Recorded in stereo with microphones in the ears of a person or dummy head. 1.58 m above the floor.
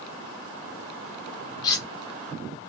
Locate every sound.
1.6 s cutlery clinking: 20° left (ahead or behind), 1.3 m